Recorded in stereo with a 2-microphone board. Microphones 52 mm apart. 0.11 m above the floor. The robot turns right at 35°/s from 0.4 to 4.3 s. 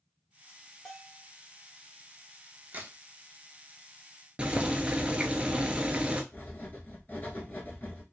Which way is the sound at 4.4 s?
20° right (ahead or behind).